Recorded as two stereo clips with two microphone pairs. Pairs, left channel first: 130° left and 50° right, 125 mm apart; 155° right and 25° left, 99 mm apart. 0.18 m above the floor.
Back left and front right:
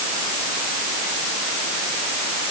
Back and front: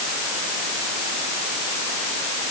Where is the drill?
I don't hear a drill.